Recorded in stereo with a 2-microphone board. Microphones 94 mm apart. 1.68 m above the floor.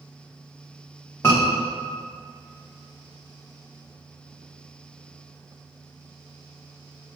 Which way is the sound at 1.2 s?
30° left (ahead or behind).